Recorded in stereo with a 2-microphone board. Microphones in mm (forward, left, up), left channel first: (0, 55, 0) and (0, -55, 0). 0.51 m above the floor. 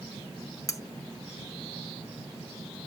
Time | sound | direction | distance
0.7 | cutlery clinking | 30° left (ahead or behind) | 0.6 m